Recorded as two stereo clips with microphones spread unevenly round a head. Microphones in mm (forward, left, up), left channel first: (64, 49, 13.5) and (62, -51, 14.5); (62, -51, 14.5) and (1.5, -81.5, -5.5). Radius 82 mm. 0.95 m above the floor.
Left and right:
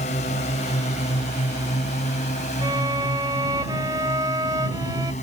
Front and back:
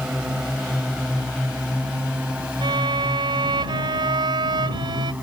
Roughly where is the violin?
Behind.